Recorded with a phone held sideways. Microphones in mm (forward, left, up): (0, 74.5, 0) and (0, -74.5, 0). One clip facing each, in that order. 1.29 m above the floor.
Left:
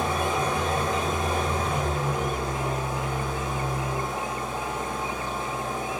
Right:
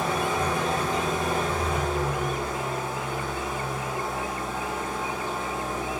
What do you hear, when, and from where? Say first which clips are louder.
0.0 s an engine running: even; 20° left (ahead or behind), 2.5 m